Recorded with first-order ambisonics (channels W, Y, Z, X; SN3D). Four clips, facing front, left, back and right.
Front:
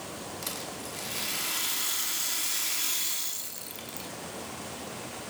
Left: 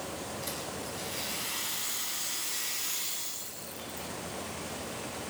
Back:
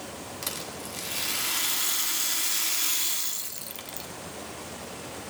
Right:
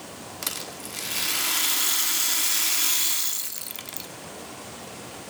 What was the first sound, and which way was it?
A rattle, 100° right.